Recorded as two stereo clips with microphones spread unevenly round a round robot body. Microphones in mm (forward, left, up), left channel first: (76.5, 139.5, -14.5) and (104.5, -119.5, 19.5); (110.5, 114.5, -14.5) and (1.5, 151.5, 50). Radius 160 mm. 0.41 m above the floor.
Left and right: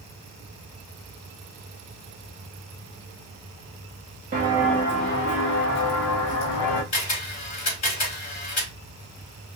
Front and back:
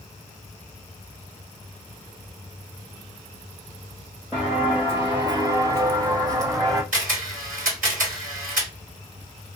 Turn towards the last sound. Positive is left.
turn(degrees=150)